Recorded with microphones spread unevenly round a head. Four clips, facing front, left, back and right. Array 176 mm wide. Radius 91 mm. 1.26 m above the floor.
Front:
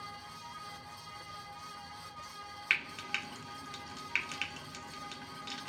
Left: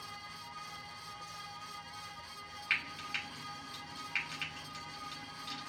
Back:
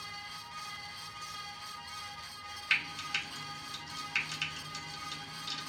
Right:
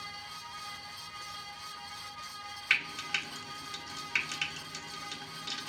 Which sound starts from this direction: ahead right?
Frying, at 2.7 s.